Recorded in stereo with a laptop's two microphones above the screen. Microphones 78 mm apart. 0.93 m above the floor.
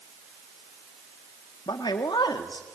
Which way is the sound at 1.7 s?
70° left (ahead or behind).